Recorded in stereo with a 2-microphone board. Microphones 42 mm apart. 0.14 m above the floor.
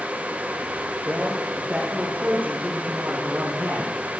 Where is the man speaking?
40° right (ahead or behind), 3 m.